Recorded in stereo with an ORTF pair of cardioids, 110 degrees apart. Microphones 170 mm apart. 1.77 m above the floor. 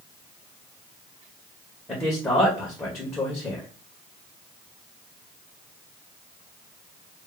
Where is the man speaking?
15° left, 1.4 m.